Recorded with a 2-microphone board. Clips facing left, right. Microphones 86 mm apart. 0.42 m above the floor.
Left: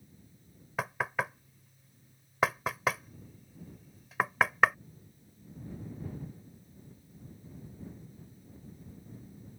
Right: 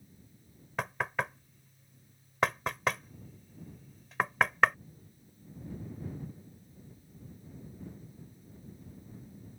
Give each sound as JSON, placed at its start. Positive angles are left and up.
{"t": 0.8, "sound": "knocking", "side_deg": 5}